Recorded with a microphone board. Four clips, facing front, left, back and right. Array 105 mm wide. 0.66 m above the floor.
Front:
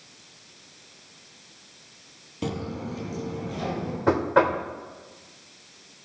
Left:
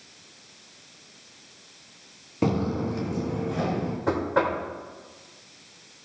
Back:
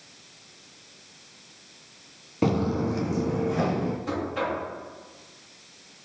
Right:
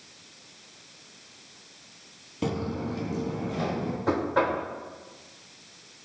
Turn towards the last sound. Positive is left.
turn(degrees=10)